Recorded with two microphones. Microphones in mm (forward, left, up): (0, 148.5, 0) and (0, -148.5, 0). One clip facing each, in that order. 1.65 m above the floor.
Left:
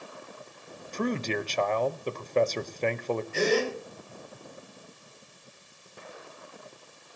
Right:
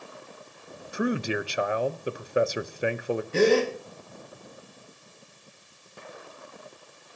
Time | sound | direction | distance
0.9 | a man speaking | 10° right (ahead or behind) | 0.9 m
3.3 | a gasp | 65° right (ahead or behind) | 4 m